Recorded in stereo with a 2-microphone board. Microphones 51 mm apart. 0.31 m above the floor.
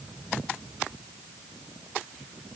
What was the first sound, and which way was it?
Only background noise.